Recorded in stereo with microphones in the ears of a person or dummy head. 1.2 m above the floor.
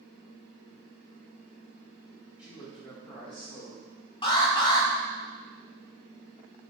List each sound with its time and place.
2.4 s a man speaking: 20° left (ahead or behind), 1.4 m; by 4.1 s 55° left (ahead or behind), 2 m
4.2 s an alarm: 25° left (ahead or behind), 1.5 m